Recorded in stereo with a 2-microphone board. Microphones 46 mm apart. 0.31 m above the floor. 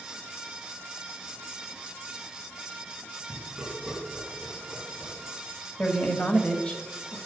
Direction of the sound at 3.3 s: 20° right (ahead or behind).